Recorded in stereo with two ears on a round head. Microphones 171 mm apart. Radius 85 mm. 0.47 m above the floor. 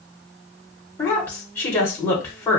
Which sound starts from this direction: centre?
A woman speaking, at 1.0 s.